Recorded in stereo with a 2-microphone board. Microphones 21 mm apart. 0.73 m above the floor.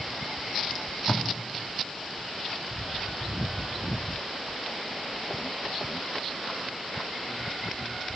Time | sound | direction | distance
0.7 | tape being pulled | 55° left (ahead or behind) | 1.6 m